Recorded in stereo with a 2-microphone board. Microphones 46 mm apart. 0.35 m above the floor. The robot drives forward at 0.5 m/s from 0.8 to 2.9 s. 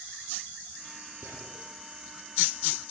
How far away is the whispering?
About 6 m.